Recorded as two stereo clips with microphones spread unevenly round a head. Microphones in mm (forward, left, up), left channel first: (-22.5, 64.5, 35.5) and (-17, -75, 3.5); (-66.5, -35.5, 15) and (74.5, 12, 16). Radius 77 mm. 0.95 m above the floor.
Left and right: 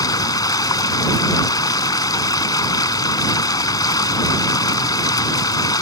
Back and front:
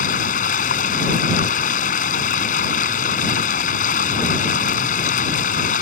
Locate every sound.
0.0 s running water: 155° left